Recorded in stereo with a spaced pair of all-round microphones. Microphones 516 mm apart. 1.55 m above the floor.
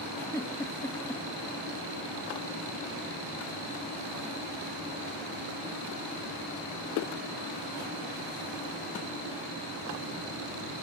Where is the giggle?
5° left (ahead or behind).